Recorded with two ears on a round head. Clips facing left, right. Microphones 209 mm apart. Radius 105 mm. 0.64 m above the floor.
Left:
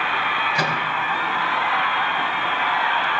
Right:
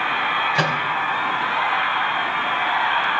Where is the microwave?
25° right (ahead or behind), 2.5 m.